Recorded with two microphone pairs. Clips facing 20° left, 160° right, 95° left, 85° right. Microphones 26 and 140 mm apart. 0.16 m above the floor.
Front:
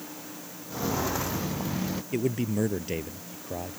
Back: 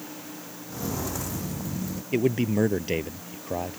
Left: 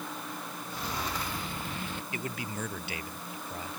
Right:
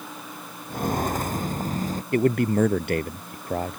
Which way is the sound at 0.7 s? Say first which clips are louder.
Front 3 dB, right 11 dB; 50° right.